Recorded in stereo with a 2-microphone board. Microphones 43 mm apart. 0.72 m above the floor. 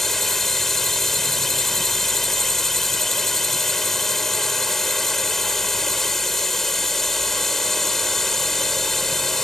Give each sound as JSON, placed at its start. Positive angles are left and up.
{"t": 0.0, "sound": "a drone", "side_deg": 5}